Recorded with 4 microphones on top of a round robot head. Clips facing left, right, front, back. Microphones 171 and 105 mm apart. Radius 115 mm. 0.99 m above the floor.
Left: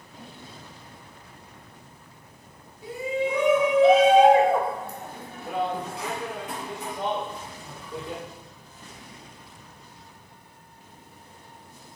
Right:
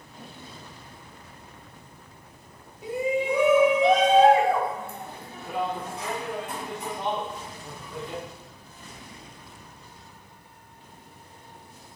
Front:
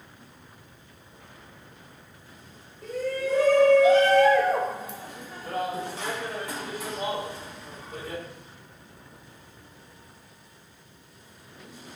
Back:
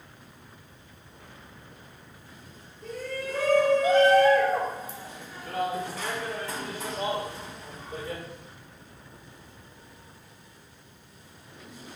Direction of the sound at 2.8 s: 20° right.